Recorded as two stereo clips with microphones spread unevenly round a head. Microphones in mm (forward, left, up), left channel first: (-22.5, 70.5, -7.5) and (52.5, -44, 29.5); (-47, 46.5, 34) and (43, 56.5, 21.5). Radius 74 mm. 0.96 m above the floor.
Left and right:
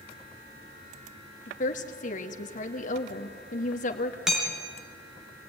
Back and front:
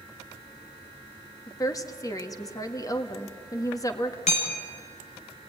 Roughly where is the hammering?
Behind right.